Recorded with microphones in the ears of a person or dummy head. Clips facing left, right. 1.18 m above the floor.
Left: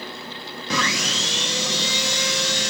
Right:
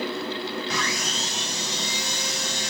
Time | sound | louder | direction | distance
0.7 | sawing | left 3 dB | 55° left (ahead or behind) | 0.9 m